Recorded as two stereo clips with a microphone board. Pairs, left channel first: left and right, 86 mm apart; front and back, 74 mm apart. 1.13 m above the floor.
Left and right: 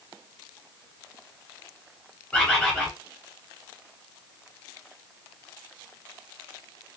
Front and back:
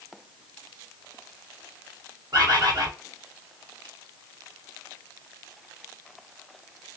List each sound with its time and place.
2.3 s a bird: 165° left, 1.6 m